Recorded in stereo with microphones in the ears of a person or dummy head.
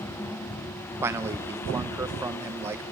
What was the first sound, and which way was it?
A man speaking, 15° right (ahead or behind).